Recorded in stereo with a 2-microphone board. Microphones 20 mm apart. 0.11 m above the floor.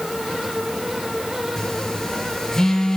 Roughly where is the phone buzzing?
Left.